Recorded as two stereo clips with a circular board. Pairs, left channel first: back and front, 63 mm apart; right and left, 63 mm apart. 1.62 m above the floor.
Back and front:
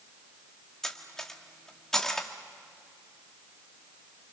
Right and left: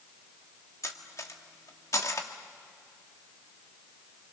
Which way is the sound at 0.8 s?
100° right.